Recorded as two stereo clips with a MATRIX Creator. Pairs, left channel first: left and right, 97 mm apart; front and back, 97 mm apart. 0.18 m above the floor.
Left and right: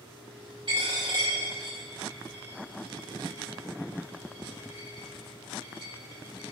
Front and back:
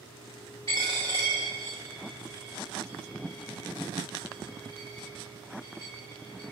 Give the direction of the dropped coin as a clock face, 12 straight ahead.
2 o'clock.